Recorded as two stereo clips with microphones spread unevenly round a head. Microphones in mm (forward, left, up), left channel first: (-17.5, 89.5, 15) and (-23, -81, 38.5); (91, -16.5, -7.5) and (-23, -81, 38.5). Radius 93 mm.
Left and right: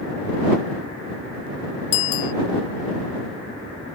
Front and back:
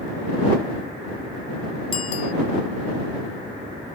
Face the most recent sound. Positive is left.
turn(degrees=90)